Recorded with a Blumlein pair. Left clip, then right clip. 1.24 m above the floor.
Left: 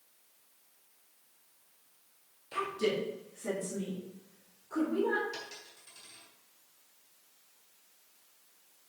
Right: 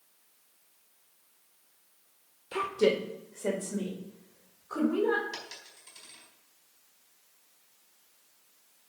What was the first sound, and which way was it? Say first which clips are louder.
A woman speaking: right 5 dB; 50° right.